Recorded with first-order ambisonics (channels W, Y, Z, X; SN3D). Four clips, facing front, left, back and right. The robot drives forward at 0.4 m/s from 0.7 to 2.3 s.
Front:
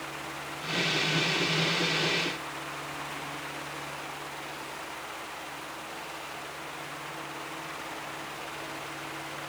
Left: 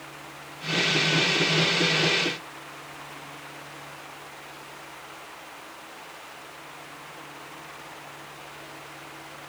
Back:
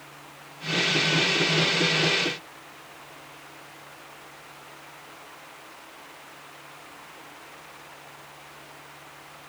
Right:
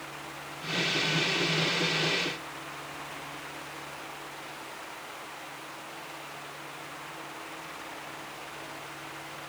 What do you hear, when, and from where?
Only background noise.